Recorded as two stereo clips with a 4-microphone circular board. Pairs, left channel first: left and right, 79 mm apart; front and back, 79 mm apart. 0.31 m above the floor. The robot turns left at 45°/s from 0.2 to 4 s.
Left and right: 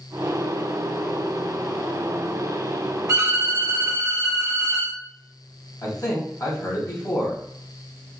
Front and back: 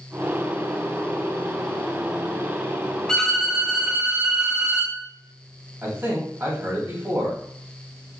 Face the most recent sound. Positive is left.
turn(degrees=125)